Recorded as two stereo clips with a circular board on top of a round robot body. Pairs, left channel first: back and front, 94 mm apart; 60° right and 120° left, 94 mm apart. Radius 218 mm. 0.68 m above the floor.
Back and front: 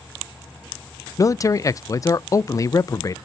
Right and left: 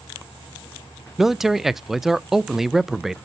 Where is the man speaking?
155° right, 0.6 m.